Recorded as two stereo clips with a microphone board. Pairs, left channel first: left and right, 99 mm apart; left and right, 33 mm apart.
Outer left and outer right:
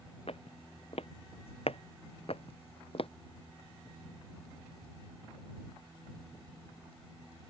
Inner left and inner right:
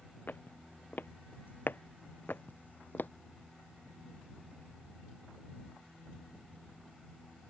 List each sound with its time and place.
0.3 s footsteps: 75° left (ahead or behind); by 3.1 s 65° left (ahead or behind)